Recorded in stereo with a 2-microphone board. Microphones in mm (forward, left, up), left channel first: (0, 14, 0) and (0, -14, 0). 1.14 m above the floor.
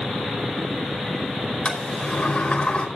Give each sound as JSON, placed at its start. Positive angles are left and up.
{"t": 1.6, "sound": "a sliding door", "side_deg": 35, "distance_m": 5.0}